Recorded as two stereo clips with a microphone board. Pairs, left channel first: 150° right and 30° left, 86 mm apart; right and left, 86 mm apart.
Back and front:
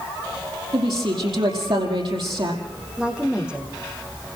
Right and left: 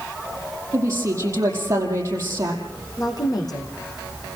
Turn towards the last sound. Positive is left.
turn(degrees=-50)